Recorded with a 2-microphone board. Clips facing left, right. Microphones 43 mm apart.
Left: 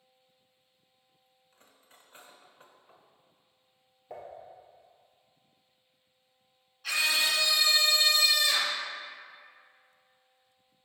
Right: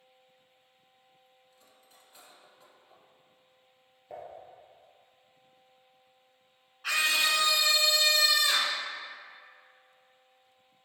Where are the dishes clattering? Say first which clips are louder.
Even; centre (ahead or behind), 2 m.